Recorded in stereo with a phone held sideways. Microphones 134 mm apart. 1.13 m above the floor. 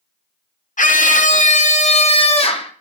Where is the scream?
75° left (ahead or behind), 1.9 m; by 2.7 s 45° left (ahead or behind), 3 m.